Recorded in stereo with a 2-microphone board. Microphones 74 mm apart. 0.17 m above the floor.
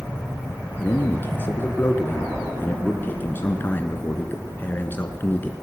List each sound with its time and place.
0.8 s a man speaking: 30° left (ahead or behind), 2.5 m